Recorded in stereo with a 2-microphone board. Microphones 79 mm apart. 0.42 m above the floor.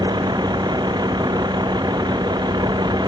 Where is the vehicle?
60° right (ahead or behind).